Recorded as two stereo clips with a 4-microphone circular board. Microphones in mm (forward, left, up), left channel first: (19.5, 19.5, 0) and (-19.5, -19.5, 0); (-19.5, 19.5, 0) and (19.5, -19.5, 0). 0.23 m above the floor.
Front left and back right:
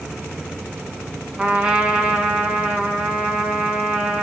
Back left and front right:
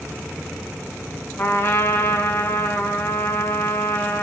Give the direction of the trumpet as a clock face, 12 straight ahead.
7 o'clock.